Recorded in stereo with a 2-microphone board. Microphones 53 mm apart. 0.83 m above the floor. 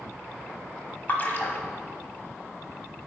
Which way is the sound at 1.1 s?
35° left (ahead or behind).